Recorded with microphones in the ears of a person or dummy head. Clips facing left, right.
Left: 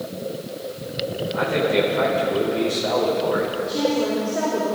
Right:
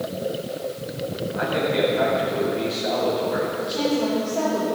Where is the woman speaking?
25° left (ahead or behind), 3 m.